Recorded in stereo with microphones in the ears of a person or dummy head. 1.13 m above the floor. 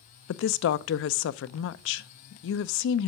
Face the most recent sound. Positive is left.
turn(degrees=65)  # may be behind; listen again after turning